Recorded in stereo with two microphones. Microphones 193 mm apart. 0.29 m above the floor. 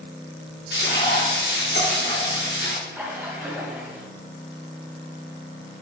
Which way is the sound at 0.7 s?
65° left (ahead or behind).